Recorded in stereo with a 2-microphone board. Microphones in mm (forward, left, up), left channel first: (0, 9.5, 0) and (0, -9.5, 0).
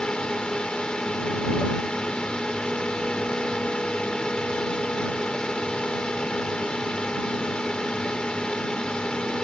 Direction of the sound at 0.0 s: 55° left (ahead or behind).